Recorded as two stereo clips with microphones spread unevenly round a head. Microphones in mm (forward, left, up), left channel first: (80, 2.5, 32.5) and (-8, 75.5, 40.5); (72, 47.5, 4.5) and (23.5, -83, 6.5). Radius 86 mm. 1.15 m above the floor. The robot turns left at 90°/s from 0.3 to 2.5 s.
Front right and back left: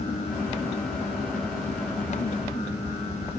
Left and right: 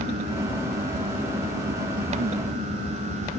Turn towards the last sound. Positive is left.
No sound to turn to.